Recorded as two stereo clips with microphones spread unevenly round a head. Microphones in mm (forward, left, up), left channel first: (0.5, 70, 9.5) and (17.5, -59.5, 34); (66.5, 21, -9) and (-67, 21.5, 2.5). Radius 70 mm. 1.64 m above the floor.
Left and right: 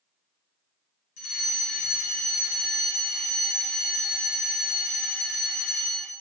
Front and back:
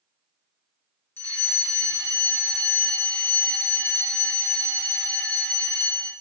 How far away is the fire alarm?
About 4.5 m.